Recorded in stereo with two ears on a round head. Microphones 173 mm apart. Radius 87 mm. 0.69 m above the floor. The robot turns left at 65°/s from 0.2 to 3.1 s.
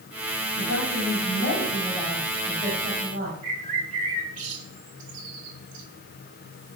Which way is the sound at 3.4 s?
40° right (ahead or behind).